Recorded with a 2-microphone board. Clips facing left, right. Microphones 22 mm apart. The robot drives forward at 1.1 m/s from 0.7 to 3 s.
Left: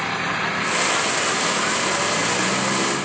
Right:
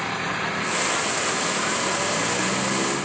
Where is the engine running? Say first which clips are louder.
Left 3 dB; 15° left (ahead or behind); by 3.0 s 10° left (ahead or behind).